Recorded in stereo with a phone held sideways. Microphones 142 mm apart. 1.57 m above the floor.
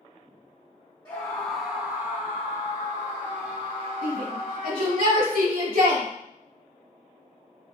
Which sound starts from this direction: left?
A scream, at 1.1 s.